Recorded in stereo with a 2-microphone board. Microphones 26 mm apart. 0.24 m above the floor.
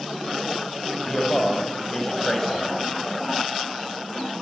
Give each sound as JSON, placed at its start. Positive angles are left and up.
{"t": 1.1, "sound": "a man speaking", "side_deg": 15, "distance_m": 0.9}